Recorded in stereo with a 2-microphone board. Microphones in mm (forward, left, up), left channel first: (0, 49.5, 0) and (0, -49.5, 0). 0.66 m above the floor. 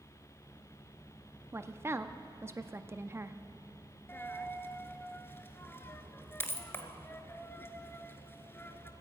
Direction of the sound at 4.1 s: 20° left (ahead or behind).